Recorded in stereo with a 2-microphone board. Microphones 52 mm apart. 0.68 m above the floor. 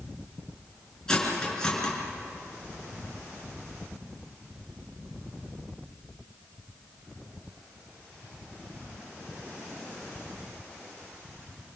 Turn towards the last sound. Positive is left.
turn(degrees=10)  # may be behind; listen again after turning